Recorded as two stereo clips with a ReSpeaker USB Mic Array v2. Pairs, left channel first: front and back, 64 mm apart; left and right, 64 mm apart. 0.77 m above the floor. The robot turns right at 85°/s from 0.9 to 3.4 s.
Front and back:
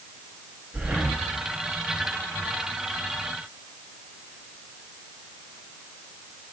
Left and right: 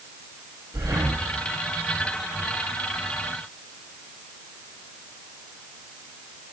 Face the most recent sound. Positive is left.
turn(degrees=95)